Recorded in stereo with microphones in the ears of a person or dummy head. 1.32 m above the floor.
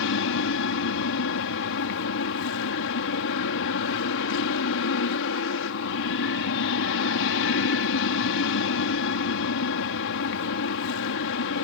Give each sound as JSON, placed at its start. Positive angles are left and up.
{"t": 0.0, "sound": "an aircraft", "side_deg": 65}